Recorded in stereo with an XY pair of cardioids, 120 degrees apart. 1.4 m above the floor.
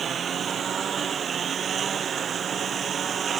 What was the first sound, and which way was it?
A lawn mower, 45° right.